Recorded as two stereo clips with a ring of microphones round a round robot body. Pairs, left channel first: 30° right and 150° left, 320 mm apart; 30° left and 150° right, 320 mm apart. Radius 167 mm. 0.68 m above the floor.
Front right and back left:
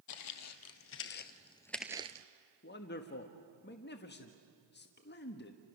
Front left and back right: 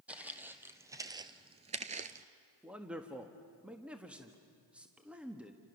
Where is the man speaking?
65° right, 1.3 m.